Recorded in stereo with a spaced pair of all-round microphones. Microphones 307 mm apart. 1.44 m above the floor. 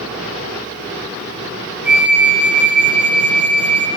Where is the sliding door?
I don't hear a sliding door.